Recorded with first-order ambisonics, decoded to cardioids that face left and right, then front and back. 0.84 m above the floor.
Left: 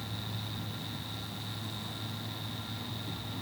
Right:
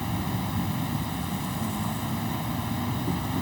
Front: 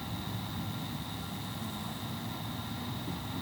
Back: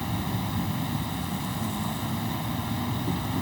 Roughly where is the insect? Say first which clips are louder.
Right 8 dB, back 8 dB; behind right.